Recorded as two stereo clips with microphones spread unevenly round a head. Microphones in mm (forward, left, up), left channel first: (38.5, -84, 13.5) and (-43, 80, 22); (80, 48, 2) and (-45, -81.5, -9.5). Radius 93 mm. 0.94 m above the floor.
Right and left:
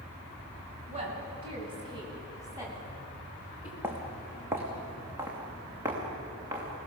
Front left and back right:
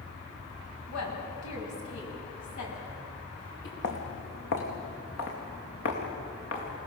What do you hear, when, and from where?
0.9 s a woman speaking: 60° left, 8 m; by 3.7 s 35° left, 8.5 m
3.8 s footsteps: 40° left, 3.5 m; by 6.7 s 45° left, 6.5 m